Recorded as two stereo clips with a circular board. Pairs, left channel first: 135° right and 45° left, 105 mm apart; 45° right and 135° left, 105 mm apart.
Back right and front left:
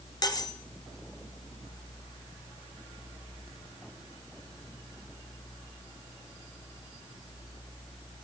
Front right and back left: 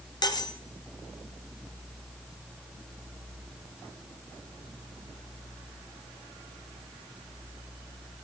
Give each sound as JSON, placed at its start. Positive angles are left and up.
{"t": 0.2, "sound": "cutlery clinking", "azimuth_deg": -90, "distance_m": 1.2}